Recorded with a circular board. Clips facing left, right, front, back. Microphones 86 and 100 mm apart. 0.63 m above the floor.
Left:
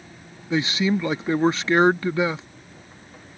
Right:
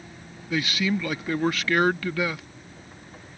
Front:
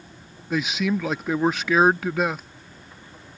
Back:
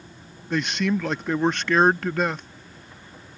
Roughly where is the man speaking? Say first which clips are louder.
Left 4 dB, even; left.